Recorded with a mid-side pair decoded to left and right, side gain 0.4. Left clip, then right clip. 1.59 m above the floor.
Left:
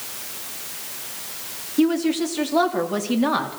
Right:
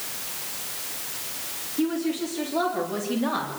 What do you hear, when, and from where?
1.8 s a woman speaking: 65° left, 4 m; by 3.6 s 50° left, 3.5 m